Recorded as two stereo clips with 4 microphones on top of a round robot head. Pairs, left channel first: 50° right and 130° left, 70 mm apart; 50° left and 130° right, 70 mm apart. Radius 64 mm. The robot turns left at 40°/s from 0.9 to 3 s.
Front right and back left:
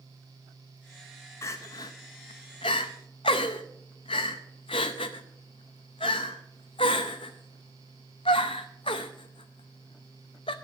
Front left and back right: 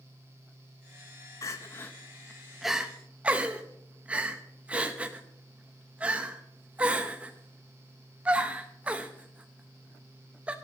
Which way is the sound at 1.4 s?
5° left.